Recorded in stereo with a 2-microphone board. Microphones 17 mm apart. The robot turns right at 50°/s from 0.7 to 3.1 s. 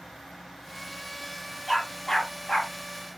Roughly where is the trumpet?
No trumpet in this recording.